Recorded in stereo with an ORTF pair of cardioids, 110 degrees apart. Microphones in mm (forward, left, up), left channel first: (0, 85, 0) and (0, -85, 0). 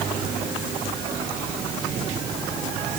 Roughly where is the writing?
No writing in this recording.